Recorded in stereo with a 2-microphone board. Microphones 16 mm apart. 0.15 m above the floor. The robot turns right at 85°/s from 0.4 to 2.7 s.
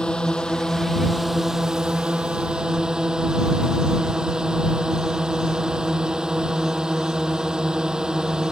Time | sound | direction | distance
0.0 | a drone | 110° left | ?